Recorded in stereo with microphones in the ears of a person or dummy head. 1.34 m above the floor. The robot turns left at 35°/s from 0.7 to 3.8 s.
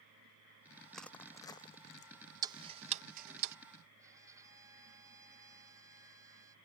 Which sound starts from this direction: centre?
Crushing, at 0.9 s.